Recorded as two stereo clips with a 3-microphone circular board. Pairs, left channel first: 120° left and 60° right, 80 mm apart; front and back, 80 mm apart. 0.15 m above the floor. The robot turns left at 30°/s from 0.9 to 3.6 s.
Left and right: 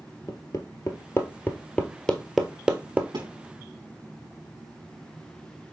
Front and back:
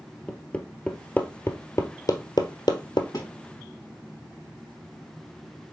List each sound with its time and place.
0.3 s hammering: 75° left, 1.2 m; by 3.0 s 10° left, 1.2 m
3.1 s a thud: 45° right, 4 m; by 3.3 s 50° right, 4 m